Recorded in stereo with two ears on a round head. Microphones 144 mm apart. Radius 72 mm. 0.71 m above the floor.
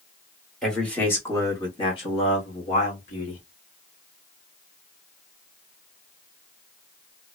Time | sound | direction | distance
0.6 | a man speaking | 5° left (ahead or behind) | 1.1 m